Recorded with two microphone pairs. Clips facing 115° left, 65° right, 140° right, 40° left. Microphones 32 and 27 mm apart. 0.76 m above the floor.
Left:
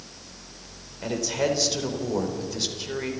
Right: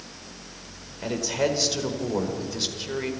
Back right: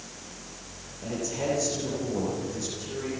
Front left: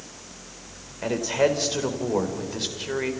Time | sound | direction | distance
1.0 | a man speaking | 20° left | 3.5 m